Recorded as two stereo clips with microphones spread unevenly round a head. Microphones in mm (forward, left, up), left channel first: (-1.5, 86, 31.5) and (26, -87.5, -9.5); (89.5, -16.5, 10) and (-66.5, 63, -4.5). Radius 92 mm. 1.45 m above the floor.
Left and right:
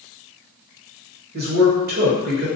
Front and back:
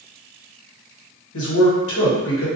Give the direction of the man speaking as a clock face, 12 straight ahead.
2 o'clock.